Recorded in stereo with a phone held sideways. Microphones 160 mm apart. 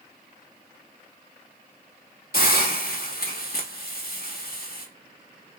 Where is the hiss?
70° left (ahead or behind), 1.1 m.